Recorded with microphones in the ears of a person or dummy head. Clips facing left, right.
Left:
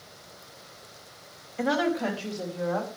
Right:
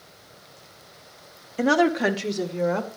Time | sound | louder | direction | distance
1.6 | a woman speaking | right 6 dB | 45° right (ahead or behind) | 1.3 m